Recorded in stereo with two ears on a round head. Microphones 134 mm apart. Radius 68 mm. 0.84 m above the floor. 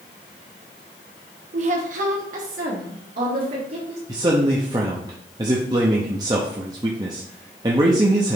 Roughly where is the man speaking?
Right.